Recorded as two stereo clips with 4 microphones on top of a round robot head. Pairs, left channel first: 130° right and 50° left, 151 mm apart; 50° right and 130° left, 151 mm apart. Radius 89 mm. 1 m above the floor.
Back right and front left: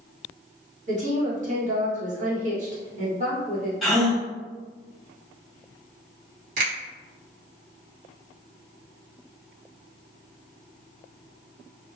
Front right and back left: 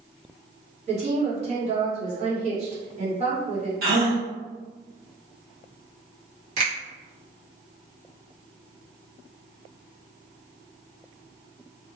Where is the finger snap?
80° left, 1.5 m.